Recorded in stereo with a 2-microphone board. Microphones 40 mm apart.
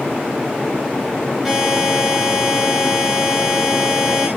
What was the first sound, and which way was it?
A buzzer, centre (ahead or behind).